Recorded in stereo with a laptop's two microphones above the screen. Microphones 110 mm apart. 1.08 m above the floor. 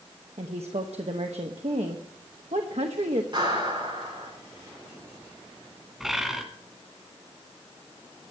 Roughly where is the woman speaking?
Right.